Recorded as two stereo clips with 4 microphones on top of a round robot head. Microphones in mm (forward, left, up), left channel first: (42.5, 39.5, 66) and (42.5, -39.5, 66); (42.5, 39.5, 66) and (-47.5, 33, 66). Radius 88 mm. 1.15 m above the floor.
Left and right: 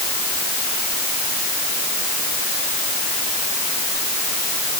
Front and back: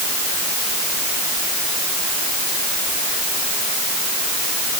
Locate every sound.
Only background noise.